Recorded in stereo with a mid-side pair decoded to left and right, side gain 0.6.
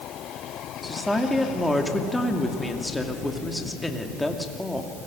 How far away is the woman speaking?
About 2.5 m.